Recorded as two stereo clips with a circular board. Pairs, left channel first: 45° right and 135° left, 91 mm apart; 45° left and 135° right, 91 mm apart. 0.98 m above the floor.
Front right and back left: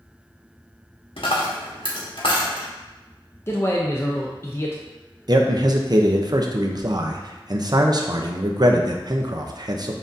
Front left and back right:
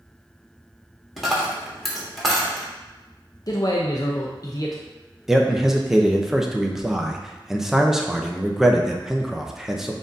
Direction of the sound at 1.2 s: 45° right.